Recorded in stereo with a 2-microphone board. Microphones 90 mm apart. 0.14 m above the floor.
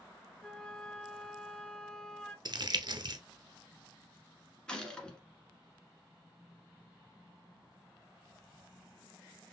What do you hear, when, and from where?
0.4 s a flute: 10° left (ahead or behind), 0.8 m
2.5 s crumpling: 50° right (ahead or behind), 0.8 m
4.7 s a gunshot: 10° left (ahead or behind), 1.5 m